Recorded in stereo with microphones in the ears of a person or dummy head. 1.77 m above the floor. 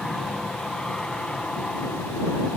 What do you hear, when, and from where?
0.0 s an aircraft: centre (ahead or behind); by 2.6 s 5° left (ahead or behind)